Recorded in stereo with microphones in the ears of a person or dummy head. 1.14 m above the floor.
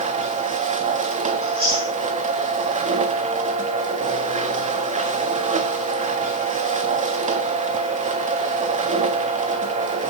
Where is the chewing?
25° right (ahead or behind), 9 m.